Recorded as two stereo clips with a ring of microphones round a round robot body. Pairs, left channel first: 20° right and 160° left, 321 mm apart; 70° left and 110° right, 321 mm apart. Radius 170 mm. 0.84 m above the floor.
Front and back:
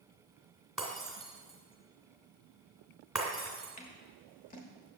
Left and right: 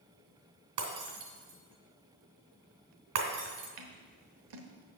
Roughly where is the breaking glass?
Behind right.